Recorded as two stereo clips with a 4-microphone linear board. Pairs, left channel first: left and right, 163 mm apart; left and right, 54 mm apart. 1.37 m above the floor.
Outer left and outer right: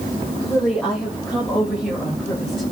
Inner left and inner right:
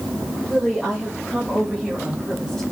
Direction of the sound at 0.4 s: 10° left (ahead or behind).